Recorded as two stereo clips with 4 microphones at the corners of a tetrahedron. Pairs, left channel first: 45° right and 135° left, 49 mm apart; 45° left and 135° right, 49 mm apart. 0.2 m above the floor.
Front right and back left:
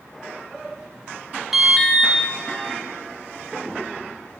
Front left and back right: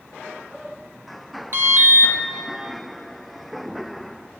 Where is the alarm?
145° right, 1.4 m.